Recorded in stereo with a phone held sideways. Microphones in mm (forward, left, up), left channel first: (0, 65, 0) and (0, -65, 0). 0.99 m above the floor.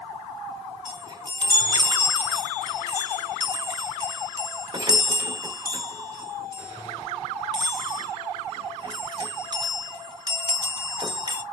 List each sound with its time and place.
0.8 s a chime: 35° right (ahead or behind), 0.8 m